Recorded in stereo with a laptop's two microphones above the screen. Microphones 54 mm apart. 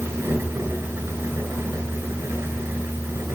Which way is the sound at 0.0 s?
60° right (ahead or behind).